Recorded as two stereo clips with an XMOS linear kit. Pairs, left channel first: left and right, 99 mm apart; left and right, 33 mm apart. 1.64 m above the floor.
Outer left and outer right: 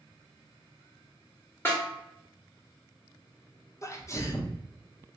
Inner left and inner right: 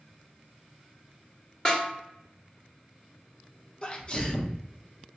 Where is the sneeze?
30° left (ahead or behind), 0.6 m.